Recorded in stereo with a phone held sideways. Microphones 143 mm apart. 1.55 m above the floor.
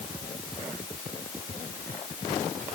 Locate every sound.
Only background noise.